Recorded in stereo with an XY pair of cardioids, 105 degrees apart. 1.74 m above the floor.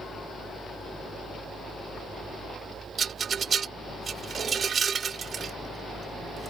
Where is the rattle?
40° right.